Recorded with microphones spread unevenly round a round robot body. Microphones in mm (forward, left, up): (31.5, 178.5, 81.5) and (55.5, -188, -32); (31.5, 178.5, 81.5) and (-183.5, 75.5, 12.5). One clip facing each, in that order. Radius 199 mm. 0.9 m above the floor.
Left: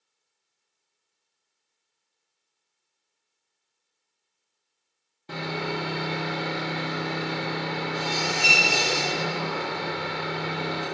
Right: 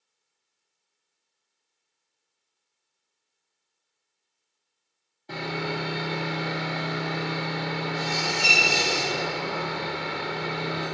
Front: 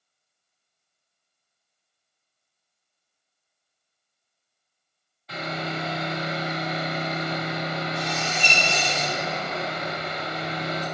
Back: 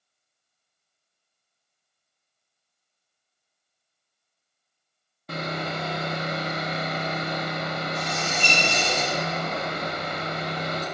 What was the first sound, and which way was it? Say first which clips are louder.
Sawing: even, back 1 dB; 175° left.